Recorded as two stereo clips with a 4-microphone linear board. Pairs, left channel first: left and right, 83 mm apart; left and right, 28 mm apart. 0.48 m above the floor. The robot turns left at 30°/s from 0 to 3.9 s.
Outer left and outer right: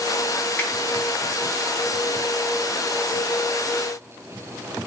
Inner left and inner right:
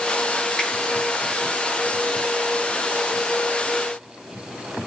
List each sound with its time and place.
0.6 s a finger snap: 20° left (ahead or behind), 6 m